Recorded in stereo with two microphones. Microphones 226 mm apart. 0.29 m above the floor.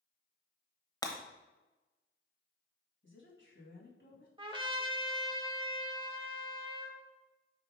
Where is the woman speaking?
55° left (ahead or behind), 2.5 m.